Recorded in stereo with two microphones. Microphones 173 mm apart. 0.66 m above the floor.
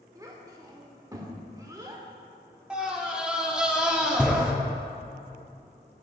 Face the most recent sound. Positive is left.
turn(degrees=-5)  # may be behind; listen again after turning